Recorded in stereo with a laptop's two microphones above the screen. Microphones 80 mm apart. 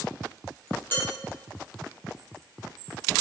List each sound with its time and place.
0.9 s dishes clattering: 25° left (ahead or behind), 1.1 m